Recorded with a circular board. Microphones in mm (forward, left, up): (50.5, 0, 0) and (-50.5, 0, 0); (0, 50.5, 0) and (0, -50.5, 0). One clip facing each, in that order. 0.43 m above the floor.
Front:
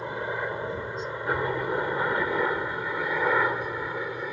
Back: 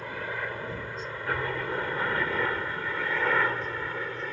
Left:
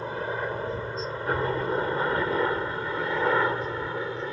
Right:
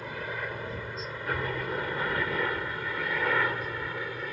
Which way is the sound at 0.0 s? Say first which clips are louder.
Front 4 dB, left 6 dB; 55° left.